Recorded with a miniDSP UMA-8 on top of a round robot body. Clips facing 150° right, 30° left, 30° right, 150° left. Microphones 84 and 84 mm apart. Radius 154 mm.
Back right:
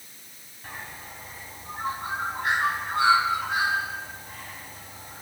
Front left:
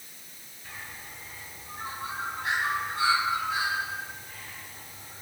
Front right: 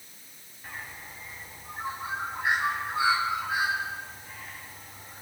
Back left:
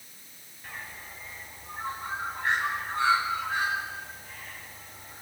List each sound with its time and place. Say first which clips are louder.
0.6 s a bird: back right 4 dB, front right 1 dB; 110° right, 4 m